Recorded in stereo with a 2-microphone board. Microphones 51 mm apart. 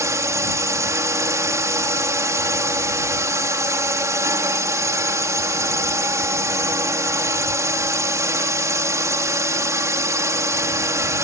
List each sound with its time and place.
0.0 s a drone: 85° right